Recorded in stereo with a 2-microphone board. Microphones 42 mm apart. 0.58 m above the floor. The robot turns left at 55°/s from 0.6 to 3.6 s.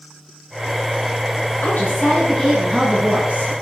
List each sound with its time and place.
1.6 s a woman speaking: 65° left, 9 m; by 3.5 s 40° right, 9 m